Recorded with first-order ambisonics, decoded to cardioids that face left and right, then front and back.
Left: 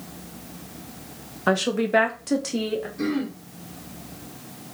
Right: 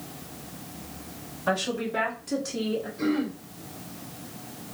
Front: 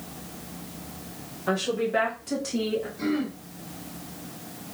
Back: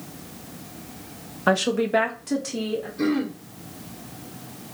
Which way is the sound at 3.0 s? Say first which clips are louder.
Even, back 4 dB; 150° left.